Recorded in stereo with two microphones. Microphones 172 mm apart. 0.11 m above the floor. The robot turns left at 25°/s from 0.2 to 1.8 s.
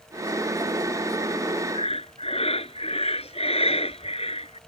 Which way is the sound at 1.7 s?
35° left (ahead or behind).